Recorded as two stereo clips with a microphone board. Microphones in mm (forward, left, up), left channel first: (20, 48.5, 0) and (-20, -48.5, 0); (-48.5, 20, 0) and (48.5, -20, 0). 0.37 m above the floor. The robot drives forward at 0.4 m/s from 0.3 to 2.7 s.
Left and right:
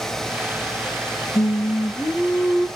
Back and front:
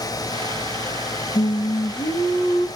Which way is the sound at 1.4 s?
120° left.